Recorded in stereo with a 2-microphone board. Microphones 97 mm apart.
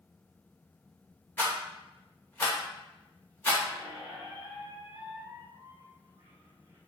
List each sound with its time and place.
1.4 s a rattle: 25° left (ahead or behind), 1.2 m
3.7 s a squeak: 50° right (ahead or behind), 0.7 m